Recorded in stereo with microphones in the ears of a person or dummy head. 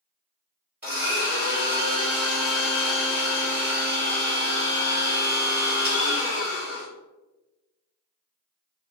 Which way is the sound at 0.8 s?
10° right (ahead or behind).